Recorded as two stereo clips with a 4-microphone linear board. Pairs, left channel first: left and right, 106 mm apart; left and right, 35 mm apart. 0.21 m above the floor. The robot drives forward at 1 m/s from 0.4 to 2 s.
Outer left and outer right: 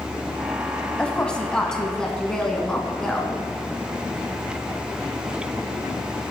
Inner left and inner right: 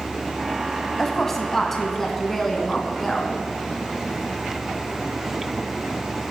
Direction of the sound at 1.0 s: 10° left (ahead or behind).